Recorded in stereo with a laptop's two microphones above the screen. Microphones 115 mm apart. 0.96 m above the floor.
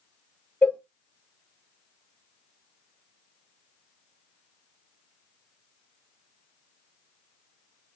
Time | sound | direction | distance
0.6 | a cowbell | 15° left (ahead or behind) | 0.8 m